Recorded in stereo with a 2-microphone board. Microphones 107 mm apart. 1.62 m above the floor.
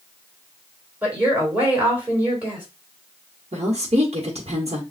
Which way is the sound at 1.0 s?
15° right (ahead or behind).